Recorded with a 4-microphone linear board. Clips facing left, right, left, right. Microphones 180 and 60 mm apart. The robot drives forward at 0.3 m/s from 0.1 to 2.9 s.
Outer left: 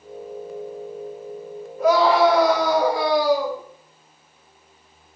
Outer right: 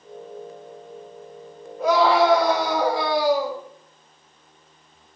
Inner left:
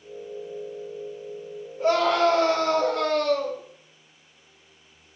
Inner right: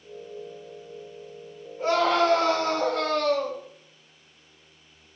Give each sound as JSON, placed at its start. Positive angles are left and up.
{"t": 1.8, "sound": "a scream", "side_deg": -35, "distance_m": 3.5}